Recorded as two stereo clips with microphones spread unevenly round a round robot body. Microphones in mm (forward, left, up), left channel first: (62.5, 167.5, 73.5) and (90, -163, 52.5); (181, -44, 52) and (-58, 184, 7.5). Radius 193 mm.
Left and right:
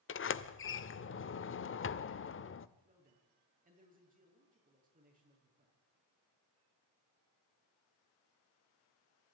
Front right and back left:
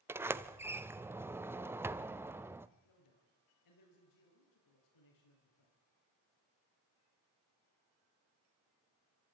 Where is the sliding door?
70° left, 0.9 m.